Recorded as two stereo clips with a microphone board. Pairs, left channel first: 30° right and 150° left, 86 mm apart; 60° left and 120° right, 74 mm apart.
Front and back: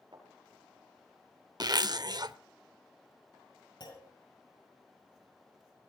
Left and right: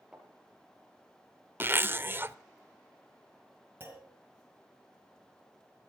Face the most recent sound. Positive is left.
turn(degrees=-55)